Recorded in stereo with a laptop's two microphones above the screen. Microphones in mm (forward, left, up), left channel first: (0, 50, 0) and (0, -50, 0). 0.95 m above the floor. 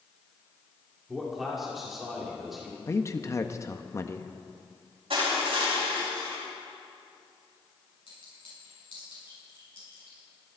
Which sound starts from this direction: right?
Crushing, at 5.1 s.